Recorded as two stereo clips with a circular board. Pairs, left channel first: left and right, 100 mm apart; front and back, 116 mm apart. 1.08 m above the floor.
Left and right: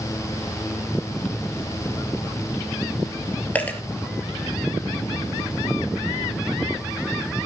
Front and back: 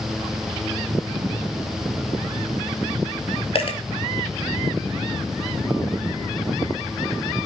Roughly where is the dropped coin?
Ahead.